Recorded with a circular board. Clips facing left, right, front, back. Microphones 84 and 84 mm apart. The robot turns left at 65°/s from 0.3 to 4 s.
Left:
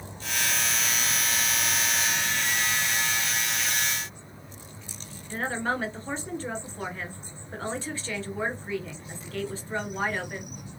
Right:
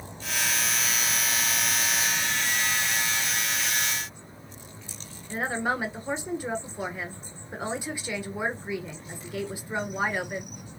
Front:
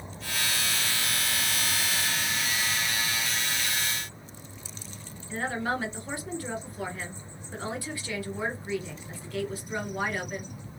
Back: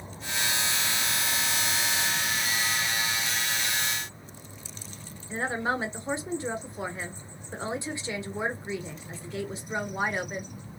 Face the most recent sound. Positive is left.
turn(degrees=-150)